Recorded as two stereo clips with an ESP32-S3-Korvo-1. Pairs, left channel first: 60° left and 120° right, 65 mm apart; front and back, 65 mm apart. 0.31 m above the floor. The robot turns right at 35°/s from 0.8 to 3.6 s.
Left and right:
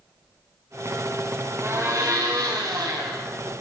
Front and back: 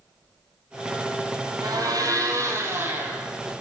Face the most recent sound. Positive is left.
turn(degrees=-95)